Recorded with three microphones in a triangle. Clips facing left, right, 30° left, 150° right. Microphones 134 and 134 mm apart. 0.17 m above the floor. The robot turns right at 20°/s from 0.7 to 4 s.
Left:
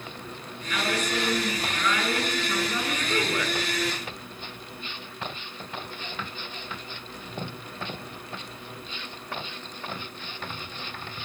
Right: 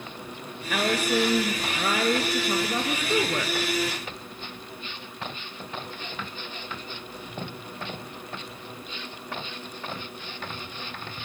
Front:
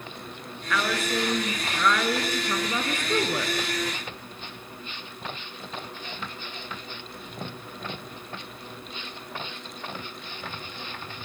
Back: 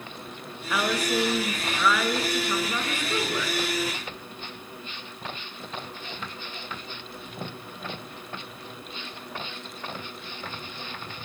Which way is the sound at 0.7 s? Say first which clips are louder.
Right 4 dB, back 1 dB; 85° right.